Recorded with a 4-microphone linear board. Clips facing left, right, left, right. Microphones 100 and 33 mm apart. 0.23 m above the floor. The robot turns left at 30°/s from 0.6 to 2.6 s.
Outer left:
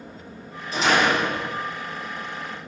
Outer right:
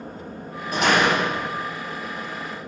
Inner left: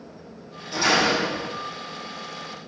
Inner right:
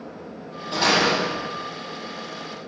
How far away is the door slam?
About 7 m.